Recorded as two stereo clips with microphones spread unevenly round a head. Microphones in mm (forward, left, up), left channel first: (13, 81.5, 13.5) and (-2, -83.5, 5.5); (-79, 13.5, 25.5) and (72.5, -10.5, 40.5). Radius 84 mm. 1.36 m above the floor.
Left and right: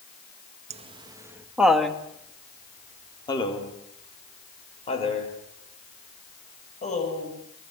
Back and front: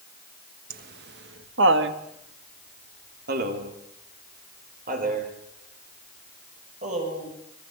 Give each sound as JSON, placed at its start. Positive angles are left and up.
{"t": 0.7, "sound": "laughter", "azimuth_deg": -40, "distance_m": 1.8}